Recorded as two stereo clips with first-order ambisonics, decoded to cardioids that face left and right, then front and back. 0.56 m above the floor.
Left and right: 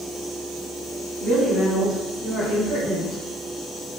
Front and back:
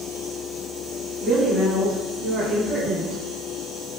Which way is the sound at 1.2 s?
10° left.